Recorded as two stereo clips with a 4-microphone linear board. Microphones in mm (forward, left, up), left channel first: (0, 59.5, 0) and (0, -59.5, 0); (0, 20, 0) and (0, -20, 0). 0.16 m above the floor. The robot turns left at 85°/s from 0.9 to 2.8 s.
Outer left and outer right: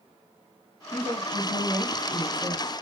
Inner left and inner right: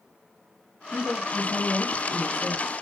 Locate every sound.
0.9 s a woman speaking: 15° right (ahead or behind), 1.2 m; by 2.7 s 20° left (ahead or behind), 1.2 m